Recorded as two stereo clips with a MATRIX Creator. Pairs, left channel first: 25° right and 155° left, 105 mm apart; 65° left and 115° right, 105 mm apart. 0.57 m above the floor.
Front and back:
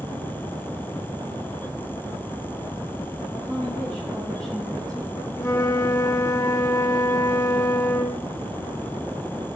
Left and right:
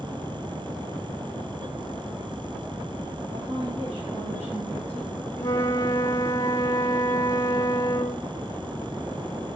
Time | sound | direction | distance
3.3 | a woman speaking | 105° right | 9.5 m
5.4 | a flute | 20° left | 1.6 m